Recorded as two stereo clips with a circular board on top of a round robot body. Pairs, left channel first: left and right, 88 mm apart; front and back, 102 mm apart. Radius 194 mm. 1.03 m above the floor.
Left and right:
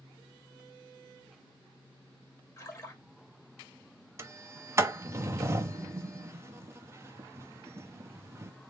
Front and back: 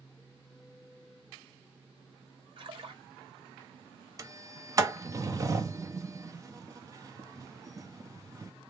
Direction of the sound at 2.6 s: 145° left.